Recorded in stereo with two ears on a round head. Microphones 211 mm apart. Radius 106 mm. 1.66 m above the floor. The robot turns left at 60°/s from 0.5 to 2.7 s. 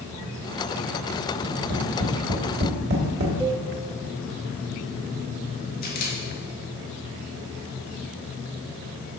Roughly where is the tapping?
Right.